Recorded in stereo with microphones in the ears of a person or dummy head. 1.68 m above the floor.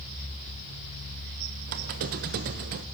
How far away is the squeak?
About 0.9 m.